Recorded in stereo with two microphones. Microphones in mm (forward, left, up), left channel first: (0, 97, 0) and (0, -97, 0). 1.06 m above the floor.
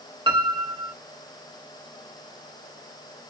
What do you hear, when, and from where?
0.3 s a piano: 25° right (ahead or behind), 0.6 m